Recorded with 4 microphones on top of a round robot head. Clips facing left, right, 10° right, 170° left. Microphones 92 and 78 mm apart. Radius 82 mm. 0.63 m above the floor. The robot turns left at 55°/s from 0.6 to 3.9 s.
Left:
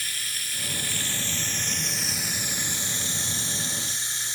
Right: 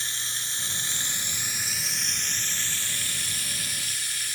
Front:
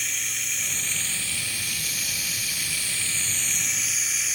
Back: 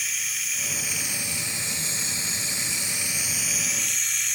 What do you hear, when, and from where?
0.0 s running water: 105° right, 0.8 m; by 4.4 s 75° left, 0.8 m